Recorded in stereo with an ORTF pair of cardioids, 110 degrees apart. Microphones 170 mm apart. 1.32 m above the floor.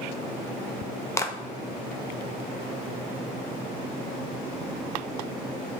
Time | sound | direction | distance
1.2 | a clap | 15° left | 0.9 m